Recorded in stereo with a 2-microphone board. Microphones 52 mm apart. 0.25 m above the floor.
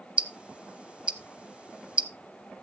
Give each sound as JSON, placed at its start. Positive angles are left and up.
{"t": 0.2, "sound": "ticking", "side_deg": -25, "distance_m": 0.7}